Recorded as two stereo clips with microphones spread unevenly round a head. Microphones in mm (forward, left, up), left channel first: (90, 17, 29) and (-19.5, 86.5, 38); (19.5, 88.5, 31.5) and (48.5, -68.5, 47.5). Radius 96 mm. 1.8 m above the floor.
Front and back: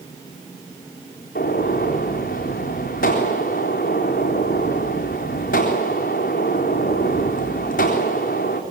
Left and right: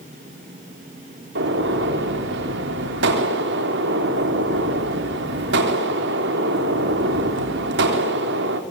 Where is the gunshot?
75° right, 4 m.